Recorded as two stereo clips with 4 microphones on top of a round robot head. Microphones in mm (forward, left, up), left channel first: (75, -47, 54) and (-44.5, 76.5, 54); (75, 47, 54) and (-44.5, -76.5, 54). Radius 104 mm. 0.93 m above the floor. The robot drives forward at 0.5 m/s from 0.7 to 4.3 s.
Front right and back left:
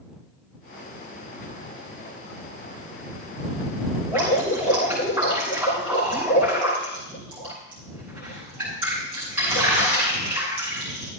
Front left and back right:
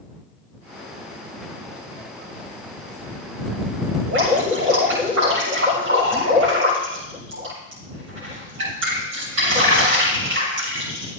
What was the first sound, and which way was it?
Dripping, 145° right.